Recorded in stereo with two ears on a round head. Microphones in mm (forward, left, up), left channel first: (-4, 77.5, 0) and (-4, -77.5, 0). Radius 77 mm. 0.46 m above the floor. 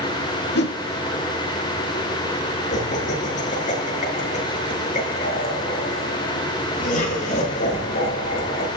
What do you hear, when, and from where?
0.6 s a whoosh: 65° left (ahead or behind), 1.0 m
2.7 s laughter: 45° left (ahead or behind), 8 m